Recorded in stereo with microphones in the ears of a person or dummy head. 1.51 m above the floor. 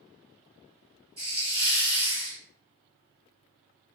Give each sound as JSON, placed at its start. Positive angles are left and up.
{"t": 1.2, "sound": "a hiss", "side_deg": -30, "distance_m": 1.3}